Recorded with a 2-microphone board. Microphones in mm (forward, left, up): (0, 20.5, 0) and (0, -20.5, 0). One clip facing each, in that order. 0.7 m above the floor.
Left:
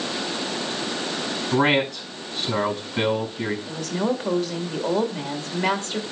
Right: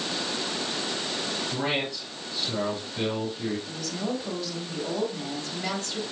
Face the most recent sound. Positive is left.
turn(degrees=50)  # may be behind; listen again after turning